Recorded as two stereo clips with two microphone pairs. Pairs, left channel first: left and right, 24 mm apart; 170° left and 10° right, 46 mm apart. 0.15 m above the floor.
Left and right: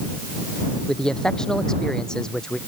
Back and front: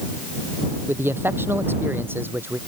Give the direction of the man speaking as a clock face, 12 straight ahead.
11 o'clock.